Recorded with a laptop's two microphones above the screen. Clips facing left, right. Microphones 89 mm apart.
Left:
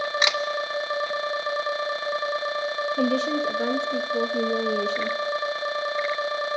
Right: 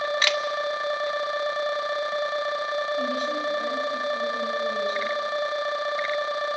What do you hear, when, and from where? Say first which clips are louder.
0.2 s a camera shutter: left 3 dB; 15° left (ahead or behind), 0.8 m
3.0 s a woman speaking: left 3 dB; 75° left (ahead or behind), 1.2 m